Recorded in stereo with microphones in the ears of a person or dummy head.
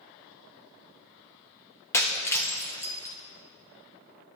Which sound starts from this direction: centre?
Breaking glass, at 1.9 s.